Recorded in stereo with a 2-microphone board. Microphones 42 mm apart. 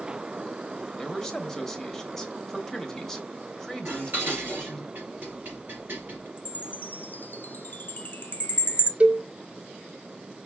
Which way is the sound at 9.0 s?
30° right (ahead or behind).